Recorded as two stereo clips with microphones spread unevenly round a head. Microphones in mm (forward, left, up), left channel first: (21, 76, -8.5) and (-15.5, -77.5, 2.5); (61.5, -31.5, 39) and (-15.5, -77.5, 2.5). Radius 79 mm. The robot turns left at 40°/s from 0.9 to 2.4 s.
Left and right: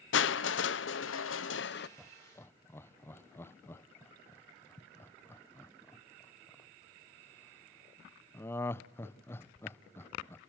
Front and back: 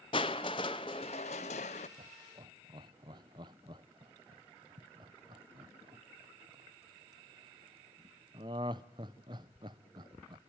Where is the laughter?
170° left, 0.9 m; by 10.4 s 155° left, 0.9 m.